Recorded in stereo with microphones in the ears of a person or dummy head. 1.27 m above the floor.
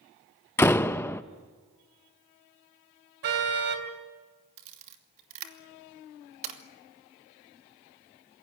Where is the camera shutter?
35° right (ahead or behind), 2.5 m.